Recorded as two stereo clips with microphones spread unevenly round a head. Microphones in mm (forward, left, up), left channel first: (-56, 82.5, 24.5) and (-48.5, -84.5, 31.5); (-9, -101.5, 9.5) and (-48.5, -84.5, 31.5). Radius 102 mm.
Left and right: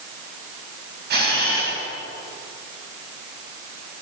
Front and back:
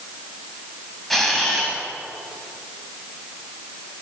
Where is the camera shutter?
110° right, 8 m.